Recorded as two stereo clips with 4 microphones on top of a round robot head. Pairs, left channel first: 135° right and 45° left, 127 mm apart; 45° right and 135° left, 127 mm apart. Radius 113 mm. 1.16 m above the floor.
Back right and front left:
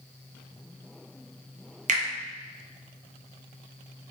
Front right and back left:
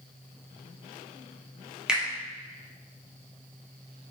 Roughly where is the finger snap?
Ahead left.